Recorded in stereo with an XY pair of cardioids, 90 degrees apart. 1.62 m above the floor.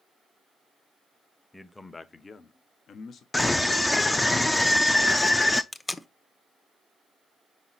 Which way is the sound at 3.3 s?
20° left.